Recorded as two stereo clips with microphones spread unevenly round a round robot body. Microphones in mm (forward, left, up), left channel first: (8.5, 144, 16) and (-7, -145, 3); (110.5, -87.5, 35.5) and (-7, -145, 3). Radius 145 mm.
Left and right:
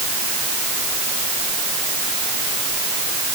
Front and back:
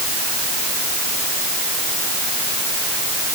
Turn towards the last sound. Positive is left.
No sound to turn to.